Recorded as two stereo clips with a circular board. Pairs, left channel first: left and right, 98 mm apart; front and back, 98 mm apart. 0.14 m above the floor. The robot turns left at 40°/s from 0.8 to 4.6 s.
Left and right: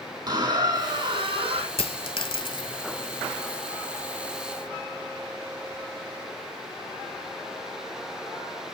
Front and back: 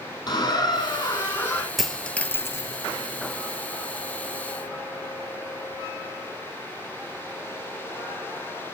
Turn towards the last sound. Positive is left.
turn(degrees=-25)